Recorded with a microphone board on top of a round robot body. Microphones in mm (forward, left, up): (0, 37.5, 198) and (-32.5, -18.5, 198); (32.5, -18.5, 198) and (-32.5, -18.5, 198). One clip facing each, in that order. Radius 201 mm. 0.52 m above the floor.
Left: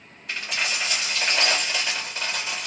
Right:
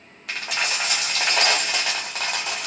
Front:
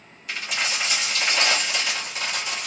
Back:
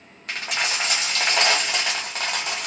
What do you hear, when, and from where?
0.3 s a dropped coin: 140° right, 1.1 m